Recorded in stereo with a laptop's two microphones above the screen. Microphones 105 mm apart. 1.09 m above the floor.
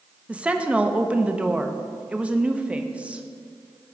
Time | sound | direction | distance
0.3 | a woman speaking | 10° right (ahead or behind) | 0.7 m